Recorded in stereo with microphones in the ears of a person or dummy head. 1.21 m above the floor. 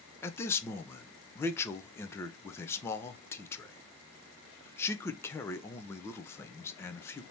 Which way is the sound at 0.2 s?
15° left (ahead or behind).